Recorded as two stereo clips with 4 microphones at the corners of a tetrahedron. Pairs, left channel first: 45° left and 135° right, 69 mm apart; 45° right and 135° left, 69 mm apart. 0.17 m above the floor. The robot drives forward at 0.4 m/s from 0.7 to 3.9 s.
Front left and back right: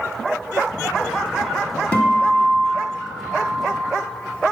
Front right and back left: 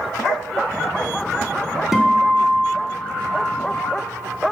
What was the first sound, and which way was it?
A guitar, 70° left.